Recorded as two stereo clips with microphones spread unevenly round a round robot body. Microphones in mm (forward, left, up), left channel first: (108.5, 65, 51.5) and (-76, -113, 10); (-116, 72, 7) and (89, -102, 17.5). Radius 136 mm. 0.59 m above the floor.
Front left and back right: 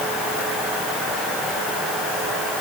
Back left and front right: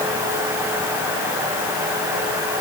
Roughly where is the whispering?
I don't hear whispering.